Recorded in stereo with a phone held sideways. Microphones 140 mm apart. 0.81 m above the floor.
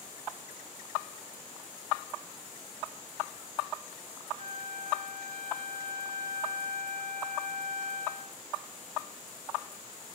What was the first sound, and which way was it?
A flute, 65° right (ahead or behind).